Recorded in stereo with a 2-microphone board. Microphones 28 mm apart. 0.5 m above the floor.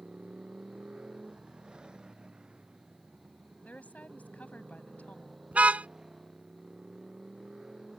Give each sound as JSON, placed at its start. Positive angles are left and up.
{"t": 0.0, "sound": "a motorcycle", "side_deg": -35}
{"t": 3.6, "sound": "a woman speaking", "side_deg": 70}
{"t": 5.5, "sound": "a car horn", "side_deg": -55}